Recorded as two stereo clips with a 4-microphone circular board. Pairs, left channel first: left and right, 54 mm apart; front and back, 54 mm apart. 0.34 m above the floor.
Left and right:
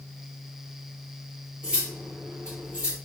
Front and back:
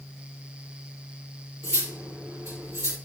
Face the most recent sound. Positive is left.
turn(degrees=-160)